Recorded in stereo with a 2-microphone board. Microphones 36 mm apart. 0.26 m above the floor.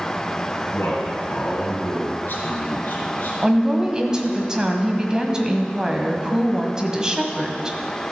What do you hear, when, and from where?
0.7 s a man speaking: 55° left (ahead or behind), 3 m; by 3.3 s 50° left (ahead or behind), 2 m
3.4 s a woman speaking: 20° right (ahead or behind), 1.2 m